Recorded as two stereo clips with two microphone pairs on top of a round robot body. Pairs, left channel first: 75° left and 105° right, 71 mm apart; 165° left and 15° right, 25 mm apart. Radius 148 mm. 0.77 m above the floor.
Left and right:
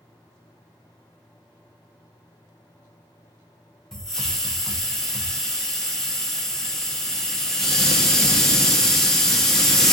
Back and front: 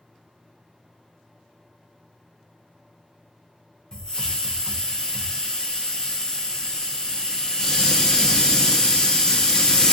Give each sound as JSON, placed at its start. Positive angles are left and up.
{"t": 3.9, "sound": "a hiss", "azimuth_deg": 150, "distance_m": 1.1}